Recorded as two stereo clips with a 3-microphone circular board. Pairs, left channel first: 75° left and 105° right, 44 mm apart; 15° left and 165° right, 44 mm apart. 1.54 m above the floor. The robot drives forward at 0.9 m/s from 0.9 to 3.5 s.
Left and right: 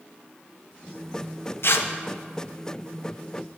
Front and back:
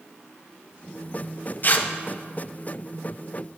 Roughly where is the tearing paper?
Ahead left.